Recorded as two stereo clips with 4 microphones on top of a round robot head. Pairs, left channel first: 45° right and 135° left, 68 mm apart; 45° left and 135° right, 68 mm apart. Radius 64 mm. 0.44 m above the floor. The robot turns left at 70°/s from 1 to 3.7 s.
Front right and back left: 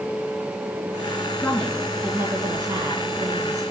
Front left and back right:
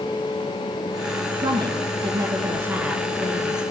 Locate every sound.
1.4 s a woman speaking: 105° right, 5.5 m; by 3.6 s 95° left, 5.5 m